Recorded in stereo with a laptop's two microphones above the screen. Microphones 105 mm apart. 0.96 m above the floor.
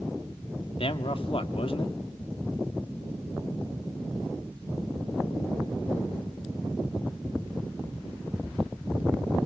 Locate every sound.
0.8 s a man speaking: 60° left (ahead or behind), 1.9 m